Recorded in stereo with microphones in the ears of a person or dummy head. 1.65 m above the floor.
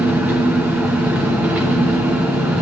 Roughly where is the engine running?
Centre.